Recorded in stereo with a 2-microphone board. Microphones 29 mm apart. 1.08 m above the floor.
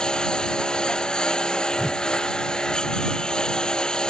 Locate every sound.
0.0 s a lawn mower: 25° left (ahead or behind)
1.8 s a whoosh: 5° right (ahead or behind)